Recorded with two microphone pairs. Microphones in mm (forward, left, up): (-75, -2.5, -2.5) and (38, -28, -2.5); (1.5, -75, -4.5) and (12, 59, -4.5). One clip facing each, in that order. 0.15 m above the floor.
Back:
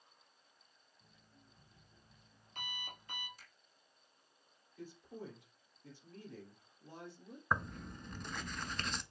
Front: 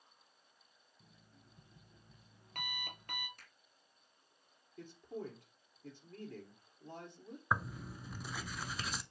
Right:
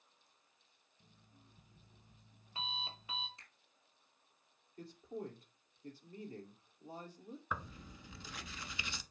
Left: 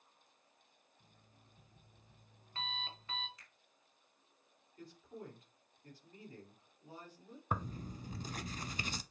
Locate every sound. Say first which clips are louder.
1.0 s an alarm clock: front 2 dB, right 3 dB; 20° right, 1.6 m
3.4 s a finger snap: even, even; 35° right, 4.5 m
4.8 s a man speaking: front 3 dB, right 5 dB; 45° right, 4 m
7.5 s tearing paper: even, left 6 dB; 70° left, 0.6 m